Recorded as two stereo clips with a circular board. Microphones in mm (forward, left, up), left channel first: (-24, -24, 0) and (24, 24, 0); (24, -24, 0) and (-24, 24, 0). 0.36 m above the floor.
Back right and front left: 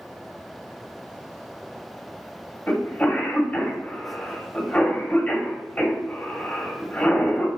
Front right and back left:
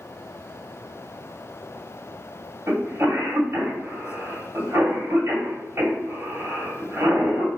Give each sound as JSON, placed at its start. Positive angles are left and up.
{"t": 2.7, "sound": "a cough", "azimuth_deg": 160, "distance_m": 2.0}